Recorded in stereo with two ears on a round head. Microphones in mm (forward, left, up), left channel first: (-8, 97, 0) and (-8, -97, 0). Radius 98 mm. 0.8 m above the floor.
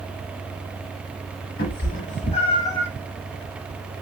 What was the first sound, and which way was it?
A cat meowing, 45° left (ahead or behind).